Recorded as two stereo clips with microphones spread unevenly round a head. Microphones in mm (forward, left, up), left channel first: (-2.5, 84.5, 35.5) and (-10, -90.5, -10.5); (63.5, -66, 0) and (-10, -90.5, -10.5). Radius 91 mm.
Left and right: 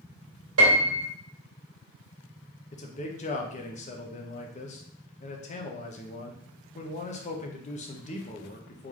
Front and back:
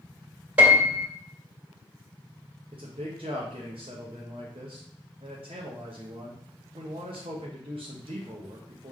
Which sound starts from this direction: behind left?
A man speaking, at 2.7 s.